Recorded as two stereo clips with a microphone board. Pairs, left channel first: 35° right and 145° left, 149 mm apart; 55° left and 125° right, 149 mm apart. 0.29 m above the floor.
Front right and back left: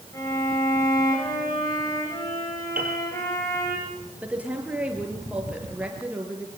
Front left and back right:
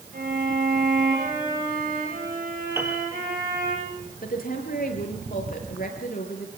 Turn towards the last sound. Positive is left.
turn(degrees=65)